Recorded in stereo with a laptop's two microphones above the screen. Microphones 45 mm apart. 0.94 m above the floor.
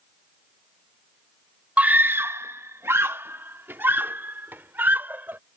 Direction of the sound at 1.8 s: 30° right (ahead or behind).